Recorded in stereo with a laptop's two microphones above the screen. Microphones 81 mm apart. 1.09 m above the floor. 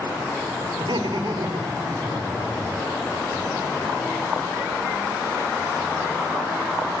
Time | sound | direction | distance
0.8 | laughter | 75° right (ahead or behind) | 3.5 m